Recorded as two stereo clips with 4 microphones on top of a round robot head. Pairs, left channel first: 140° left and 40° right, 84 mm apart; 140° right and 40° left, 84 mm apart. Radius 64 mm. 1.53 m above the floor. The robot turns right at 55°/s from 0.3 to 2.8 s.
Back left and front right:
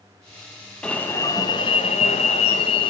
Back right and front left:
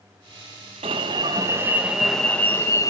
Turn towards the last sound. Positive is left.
turn(degrees=170)